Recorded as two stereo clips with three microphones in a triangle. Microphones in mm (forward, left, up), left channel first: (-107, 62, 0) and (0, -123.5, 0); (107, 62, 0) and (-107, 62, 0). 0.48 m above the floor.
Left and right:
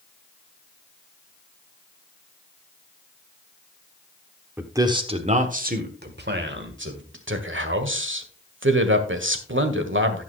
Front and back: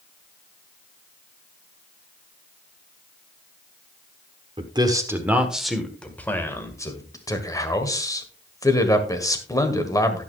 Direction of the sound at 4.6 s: 135° right.